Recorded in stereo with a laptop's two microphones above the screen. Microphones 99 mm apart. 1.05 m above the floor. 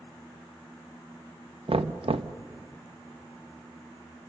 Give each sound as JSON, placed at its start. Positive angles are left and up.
{"t": 1.7, "sound": "knocking", "side_deg": -75, "distance_m": 0.7}